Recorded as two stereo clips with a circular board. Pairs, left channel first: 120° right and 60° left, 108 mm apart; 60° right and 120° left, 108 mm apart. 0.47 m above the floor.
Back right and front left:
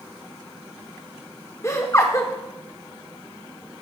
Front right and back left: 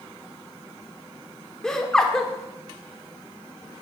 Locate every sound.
1.6 s laughter: 135° right, 1.2 m